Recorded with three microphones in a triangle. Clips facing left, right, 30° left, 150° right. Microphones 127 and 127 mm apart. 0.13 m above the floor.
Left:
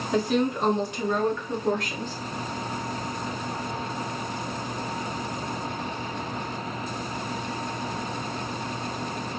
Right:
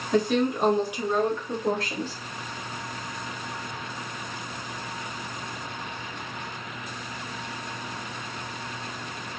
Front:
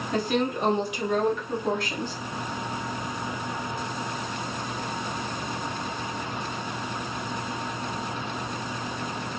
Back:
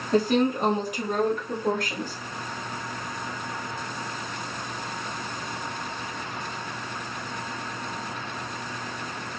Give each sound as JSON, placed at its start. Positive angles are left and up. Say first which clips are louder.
{"t": 0.1, "sound": "a woman speaking", "louder": "right 1 dB, back 4 dB", "azimuth_deg": 170, "distance_m": 1.5}